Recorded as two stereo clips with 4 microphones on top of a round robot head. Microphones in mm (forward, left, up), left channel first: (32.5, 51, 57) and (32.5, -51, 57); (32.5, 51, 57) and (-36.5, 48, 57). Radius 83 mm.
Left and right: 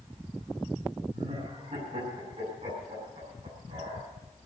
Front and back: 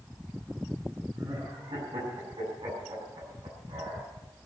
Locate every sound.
1.1 s laughter: 140° right, 7 m